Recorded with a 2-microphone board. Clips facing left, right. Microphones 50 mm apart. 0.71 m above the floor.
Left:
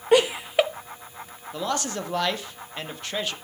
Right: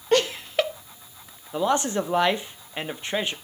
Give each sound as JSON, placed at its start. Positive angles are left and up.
{"t": 0.1, "sound": "laughter", "side_deg": 15, "distance_m": 0.6}
{"t": 1.5, "sound": "a man speaking", "side_deg": -20, "distance_m": 1.0}